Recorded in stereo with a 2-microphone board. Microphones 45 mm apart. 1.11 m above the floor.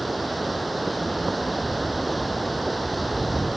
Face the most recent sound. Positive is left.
turn(degrees=0)  # may be behind; listen again after turning